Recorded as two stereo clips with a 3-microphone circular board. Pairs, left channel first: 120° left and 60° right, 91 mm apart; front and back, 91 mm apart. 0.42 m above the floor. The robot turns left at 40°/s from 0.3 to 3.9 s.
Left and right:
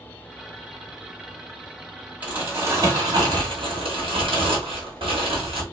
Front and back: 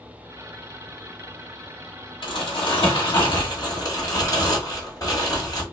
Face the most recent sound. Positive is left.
turn(degrees=-50)